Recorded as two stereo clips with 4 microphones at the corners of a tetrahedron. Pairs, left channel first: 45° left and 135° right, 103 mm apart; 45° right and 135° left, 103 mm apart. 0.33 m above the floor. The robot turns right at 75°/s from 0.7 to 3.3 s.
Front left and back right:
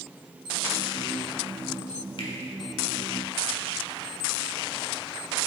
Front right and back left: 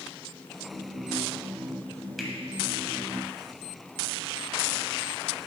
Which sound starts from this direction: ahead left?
A finger snap, at 2.2 s.